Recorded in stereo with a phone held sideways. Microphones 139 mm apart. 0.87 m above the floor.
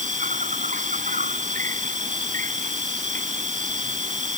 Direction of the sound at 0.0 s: 65° right (ahead or behind).